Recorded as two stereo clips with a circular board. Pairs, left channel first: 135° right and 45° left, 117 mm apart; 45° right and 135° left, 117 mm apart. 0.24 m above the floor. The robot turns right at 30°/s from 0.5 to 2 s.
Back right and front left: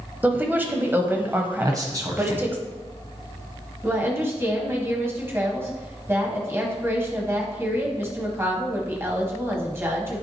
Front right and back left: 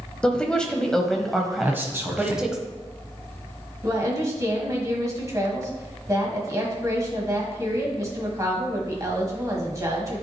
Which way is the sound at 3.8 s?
95° left.